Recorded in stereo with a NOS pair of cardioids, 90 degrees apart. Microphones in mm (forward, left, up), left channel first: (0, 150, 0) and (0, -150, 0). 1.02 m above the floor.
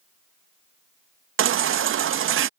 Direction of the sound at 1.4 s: 45° right.